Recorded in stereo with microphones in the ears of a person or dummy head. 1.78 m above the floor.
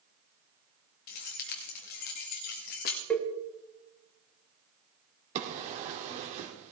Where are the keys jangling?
40° left (ahead or behind), 1.3 m.